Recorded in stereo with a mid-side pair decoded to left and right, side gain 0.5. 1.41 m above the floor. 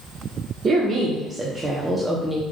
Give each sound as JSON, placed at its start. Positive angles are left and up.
{"t": 0.6, "sound": "a woman speaking", "azimuth_deg": -30, "distance_m": 1.4}